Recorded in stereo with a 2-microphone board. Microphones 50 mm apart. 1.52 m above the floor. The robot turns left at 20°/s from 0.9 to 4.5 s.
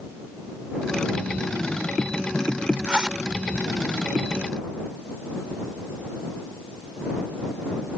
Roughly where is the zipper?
Right.